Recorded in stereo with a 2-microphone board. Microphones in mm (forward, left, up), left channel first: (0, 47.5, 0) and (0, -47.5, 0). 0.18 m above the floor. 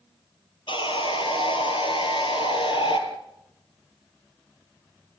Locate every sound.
0.7 s sawing: 65° left (ahead or behind), 3 m